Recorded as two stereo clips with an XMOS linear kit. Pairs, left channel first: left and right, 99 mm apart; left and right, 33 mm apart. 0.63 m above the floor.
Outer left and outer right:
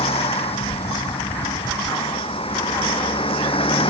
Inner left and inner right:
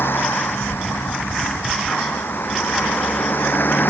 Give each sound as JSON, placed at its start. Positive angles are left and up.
{"t": 0.0, "sound": "a vehicle", "side_deg": 85}